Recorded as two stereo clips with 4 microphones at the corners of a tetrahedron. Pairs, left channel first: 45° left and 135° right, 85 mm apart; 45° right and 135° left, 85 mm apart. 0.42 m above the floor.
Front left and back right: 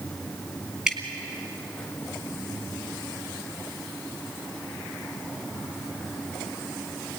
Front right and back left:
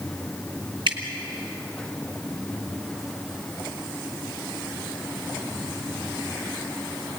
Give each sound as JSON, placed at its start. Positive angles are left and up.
{"t": 0.9, "sound": "dripping", "azimuth_deg": 140, "distance_m": 3.0}